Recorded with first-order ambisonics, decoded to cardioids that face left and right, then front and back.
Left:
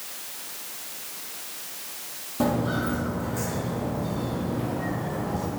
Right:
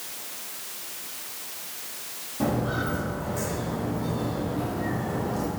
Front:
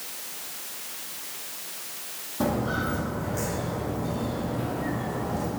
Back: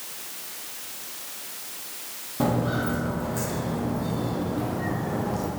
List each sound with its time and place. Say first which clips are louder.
2.4 s footsteps: left 2 dB, back 1 dB; 140° left, 1.8 m; by 5.5 s 155° right, 3 m